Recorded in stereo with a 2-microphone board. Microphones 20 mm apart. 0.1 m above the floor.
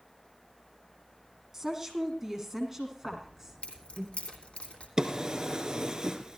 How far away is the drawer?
About 1.8 m.